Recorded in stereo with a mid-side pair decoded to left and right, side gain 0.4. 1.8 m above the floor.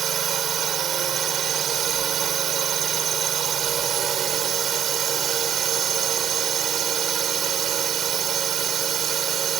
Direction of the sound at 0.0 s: 65° right.